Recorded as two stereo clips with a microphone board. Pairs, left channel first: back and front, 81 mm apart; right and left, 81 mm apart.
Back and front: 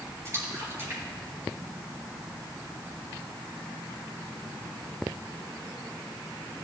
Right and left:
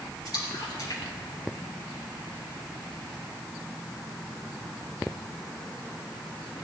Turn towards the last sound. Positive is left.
turn(degrees=-55)